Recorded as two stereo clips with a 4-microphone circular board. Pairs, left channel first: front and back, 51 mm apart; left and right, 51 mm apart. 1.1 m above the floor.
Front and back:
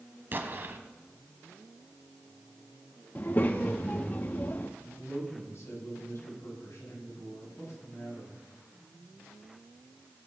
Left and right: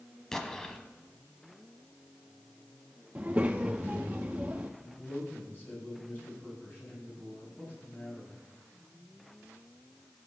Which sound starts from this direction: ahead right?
A child speaking, at 3.1 s.